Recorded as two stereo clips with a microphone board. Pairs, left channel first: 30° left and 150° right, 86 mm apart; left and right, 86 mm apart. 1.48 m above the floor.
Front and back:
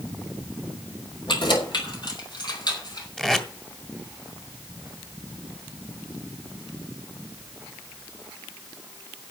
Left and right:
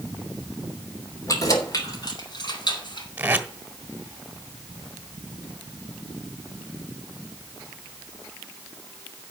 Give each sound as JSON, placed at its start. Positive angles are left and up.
{"t": 1.3, "sound": "keys jangling", "azimuth_deg": 40, "distance_m": 3.0}
{"t": 3.2, "sound": "tape being pulled", "azimuth_deg": -50, "distance_m": 1.4}